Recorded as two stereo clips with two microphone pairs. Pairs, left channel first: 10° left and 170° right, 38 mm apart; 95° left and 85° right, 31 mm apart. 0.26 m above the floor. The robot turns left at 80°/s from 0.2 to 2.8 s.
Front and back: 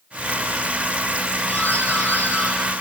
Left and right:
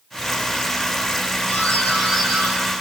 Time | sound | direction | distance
1.5 | a doorbell | 55° left | 6.5 m